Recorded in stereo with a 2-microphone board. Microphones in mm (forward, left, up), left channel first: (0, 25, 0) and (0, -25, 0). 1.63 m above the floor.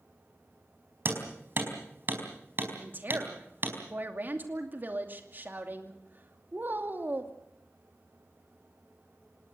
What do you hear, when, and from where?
1.1 s hammering: 45° right (ahead or behind), 4.5 m
2.8 s a woman speaking: 40° right (ahead or behind), 2.5 m